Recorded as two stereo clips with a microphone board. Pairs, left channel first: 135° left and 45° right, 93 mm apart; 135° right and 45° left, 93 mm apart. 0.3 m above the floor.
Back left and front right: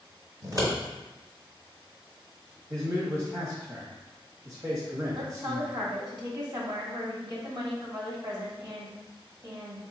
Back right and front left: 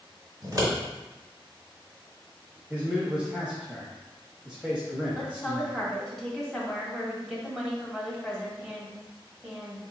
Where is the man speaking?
30° right, 1.1 m.